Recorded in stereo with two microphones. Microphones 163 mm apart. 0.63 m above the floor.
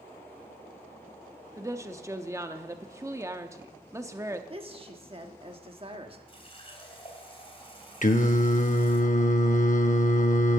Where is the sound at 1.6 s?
20° right (ahead or behind), 0.8 m.